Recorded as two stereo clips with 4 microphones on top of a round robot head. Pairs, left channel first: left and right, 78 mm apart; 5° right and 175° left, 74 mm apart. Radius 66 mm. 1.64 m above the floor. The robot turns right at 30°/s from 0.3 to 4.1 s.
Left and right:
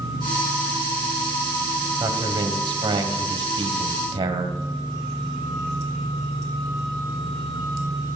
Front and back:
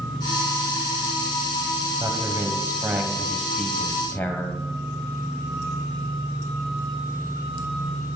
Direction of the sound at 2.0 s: 135° right.